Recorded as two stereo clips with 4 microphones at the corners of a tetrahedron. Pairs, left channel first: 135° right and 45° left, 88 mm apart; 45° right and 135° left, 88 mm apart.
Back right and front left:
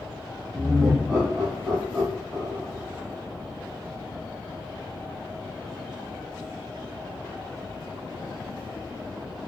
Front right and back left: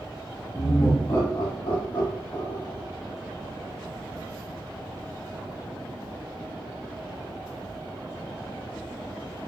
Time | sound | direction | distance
0.5 | laughter | 30° right | 1.7 m